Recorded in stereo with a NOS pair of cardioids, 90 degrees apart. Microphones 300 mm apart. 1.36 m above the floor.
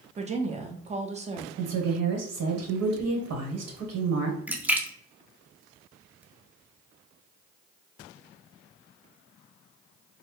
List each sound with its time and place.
0.2 s a woman speaking: 20° right, 0.9 m
1.6 s a woman speaking: 60° right, 1.4 m
4.5 s a splash: 5° right, 0.5 m